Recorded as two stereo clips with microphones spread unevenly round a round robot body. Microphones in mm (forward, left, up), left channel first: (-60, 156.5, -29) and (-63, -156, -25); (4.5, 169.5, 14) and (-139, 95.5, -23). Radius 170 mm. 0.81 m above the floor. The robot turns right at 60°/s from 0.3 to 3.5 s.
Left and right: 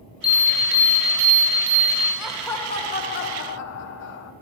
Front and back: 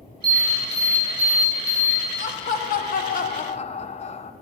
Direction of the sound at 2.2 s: 5° right.